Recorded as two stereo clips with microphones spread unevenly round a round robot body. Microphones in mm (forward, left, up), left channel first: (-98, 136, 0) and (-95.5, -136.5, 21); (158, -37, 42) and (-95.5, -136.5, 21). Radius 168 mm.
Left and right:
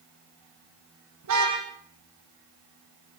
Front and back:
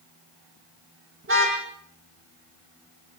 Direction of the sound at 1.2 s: 115° right.